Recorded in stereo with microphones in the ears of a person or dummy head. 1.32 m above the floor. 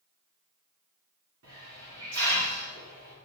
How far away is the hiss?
About 2.5 m.